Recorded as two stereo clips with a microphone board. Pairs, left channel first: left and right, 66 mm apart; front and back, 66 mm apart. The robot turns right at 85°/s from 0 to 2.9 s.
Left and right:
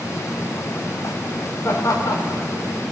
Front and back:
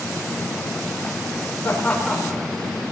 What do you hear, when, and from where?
1.6 s laughter: 50° left, 4 m; by 2.4 s 115° left, 4 m